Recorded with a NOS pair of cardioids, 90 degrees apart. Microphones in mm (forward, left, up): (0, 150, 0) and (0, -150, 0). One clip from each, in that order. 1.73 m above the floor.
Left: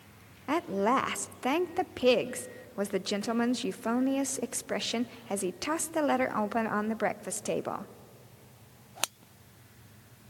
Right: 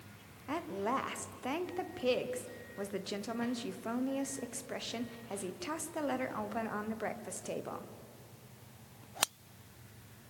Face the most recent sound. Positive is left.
turn(degrees=40)